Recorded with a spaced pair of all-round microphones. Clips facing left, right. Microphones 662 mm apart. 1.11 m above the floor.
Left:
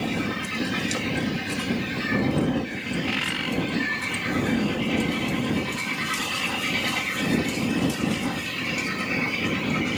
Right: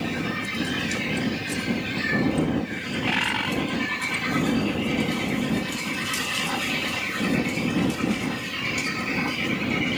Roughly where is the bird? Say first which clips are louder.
Right 1 dB; right.